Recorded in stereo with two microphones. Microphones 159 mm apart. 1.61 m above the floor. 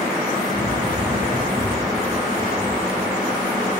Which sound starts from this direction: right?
Running footsteps, at 0.5 s.